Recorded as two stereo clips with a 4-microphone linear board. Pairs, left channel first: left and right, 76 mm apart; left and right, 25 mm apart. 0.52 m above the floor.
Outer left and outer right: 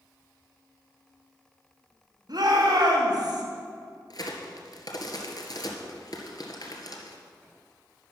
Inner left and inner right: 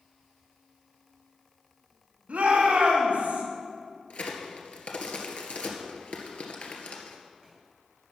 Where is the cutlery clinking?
I don't hear cutlery clinking.